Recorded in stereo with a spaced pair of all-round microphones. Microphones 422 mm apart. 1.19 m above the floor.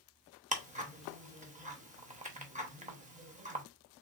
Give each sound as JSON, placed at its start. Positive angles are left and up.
{"t": 0.5, "sound": "ticking", "side_deg": -15, "distance_m": 0.9}